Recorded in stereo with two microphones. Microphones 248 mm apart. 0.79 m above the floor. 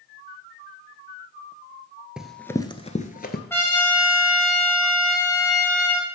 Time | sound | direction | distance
2.2 | running footsteps | 5° right (ahead or behind) | 0.9 m
3.5 | a trumpet | 10° left (ahead or behind) | 3 m